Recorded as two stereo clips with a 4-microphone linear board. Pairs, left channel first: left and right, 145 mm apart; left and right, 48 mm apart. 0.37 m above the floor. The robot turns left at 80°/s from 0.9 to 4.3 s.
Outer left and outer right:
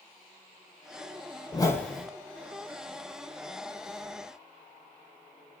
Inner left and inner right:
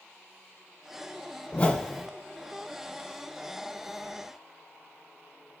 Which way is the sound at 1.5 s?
35° left.